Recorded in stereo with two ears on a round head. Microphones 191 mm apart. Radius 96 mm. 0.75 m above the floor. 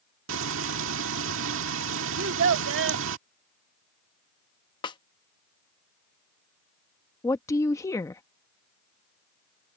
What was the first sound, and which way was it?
Frying, 65° right (ahead or behind).